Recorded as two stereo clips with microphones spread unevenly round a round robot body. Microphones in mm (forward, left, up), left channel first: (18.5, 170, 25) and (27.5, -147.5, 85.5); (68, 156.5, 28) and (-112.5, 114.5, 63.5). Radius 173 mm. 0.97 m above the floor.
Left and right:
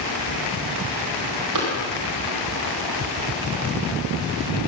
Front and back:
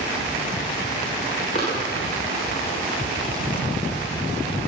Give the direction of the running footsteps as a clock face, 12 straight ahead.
2 o'clock.